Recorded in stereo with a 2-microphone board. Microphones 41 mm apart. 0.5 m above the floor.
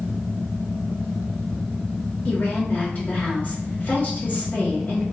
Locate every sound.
2.2 s a woman speaking: 45° left (ahead or behind), 2.0 m